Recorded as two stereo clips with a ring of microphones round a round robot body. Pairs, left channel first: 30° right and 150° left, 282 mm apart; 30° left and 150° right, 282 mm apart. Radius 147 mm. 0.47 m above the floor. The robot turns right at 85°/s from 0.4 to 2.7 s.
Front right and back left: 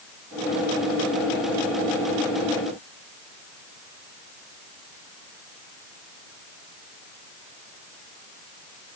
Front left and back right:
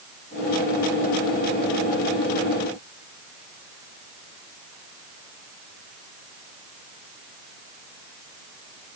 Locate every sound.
Only background noise.